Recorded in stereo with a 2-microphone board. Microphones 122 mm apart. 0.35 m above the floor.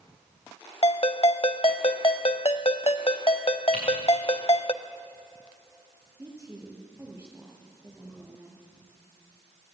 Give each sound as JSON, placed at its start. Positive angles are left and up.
{"t": 0.8, "sound": "a ringtone", "side_deg": 50, "distance_m": 0.8}
{"t": 3.7, "sound": "typing on a keyboard", "side_deg": -75, "distance_m": 9.0}
{"t": 6.2, "sound": "a woman speaking", "side_deg": -20, "distance_m": 6.5}